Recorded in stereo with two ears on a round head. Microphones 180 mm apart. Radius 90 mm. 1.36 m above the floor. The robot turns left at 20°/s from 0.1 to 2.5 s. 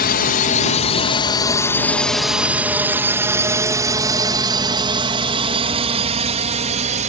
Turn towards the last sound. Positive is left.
turn(degrees=-35)  # may be behind; listen again after turning